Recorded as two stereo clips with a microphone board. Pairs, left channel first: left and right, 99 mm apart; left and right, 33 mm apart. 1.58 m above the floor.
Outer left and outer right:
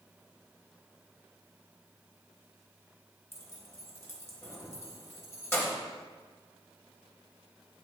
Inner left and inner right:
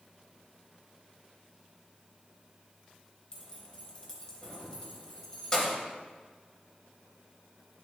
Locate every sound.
3.3 s keys jangling: 25° left (ahead or behind), 0.9 m